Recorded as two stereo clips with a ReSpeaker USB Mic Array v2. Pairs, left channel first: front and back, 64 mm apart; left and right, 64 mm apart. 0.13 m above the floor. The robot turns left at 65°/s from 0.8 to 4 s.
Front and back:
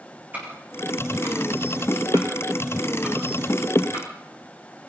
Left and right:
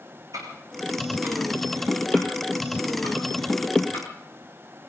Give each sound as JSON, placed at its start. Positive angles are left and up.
{"t": 0.3, "sound": "ticking", "azimuth_deg": -115, "distance_m": 9.5}